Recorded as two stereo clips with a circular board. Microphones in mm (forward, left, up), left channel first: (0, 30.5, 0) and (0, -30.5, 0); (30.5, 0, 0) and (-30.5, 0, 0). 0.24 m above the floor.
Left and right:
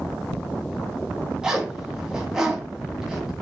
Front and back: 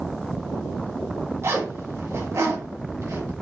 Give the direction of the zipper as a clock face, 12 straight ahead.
6 o'clock.